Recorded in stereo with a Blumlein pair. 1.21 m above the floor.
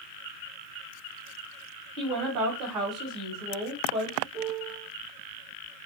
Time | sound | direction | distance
2.0 | a woman speaking | 35° right | 1.0 m
4.3 | a piano | 40° right | 0.8 m